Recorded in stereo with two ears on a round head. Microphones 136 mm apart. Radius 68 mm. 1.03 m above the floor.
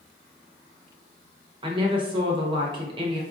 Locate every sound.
1.6 s a woman speaking: 30° right (ahead or behind), 0.8 m